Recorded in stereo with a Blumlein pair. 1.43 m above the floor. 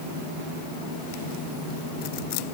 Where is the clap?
I don't hear a clap.